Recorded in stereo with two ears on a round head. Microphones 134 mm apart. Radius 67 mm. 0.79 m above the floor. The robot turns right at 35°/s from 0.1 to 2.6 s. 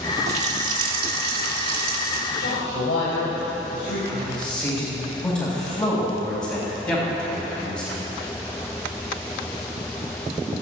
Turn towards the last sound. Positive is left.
turn(degrees=15)  # may be behind; listen again after turning